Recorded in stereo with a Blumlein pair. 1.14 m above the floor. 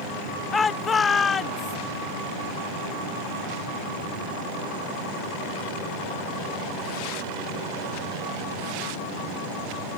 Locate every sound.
0.5 s a shout: 15° left; by 1.8 s 20° left